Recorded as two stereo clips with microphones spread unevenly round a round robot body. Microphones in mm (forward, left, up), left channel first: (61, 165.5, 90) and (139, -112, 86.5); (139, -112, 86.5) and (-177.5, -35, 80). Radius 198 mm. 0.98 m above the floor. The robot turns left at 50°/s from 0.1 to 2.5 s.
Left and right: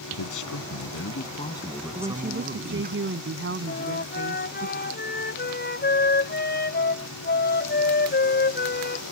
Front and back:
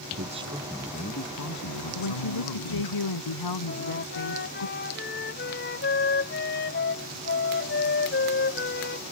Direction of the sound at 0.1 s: 105° left.